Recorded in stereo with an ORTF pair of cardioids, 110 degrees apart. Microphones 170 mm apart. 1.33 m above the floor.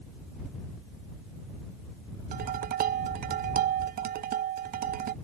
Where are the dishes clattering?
60° right.